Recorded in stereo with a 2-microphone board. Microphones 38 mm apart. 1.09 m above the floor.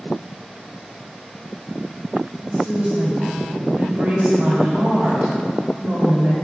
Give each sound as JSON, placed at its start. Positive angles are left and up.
{"t": 2.4, "sound": "a woman speaking", "side_deg": -45, "distance_m": 3.0}